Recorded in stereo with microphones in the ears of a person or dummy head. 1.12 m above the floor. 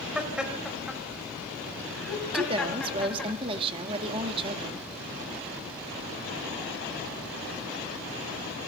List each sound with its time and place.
0.1 s laughter: centre (ahead or behind), 5 m; by 3.3 s 5° left (ahead or behind), 8.5 m
2.3 s a woman speaking: 35° right (ahead or behind), 1.9 m